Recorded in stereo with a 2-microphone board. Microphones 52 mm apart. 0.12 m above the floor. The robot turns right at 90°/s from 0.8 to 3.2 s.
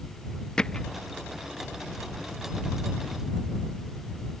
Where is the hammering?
15° left (ahead or behind); by 0.8 s 10° left (ahead or behind).